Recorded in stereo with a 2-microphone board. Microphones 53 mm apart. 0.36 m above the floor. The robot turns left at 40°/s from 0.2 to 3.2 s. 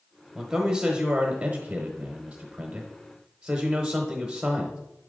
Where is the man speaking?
10° right (ahead or behind), 1.0 m.